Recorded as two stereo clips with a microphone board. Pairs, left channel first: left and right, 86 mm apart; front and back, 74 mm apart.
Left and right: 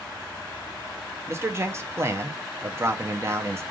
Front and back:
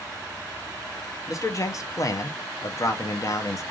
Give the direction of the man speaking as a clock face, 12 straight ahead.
1 o'clock.